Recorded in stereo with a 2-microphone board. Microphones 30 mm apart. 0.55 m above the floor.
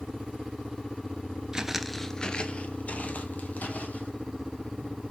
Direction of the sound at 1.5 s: 25° right (ahead or behind).